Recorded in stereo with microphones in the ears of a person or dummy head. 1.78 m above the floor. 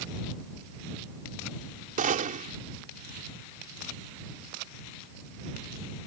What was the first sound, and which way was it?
A gunshot, 45° right (ahead or behind).